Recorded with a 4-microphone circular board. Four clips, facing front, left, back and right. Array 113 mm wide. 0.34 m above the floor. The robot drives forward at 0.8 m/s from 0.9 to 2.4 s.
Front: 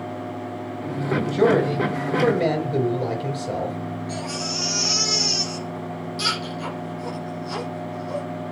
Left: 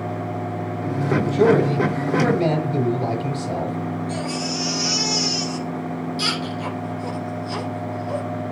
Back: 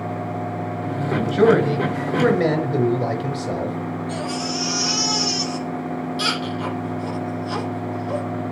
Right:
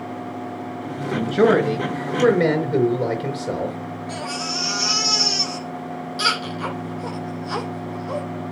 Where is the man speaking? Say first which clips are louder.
Even, back 2 dB; 130° right, 4 m; by 3.8 s 140° right, 5 m.